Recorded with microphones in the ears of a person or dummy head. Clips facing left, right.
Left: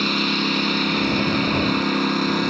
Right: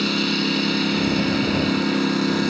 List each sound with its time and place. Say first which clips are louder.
0.0 s a lawn mower: right 1 dB; 10° right (ahead or behind)